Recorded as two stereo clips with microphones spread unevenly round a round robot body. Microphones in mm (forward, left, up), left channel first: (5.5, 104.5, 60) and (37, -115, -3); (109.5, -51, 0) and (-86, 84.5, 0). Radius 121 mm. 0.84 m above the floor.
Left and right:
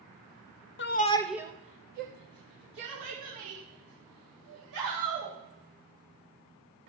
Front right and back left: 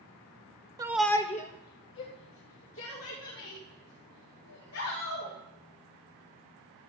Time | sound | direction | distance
0.8 | a shout | 80° left | 0.8 m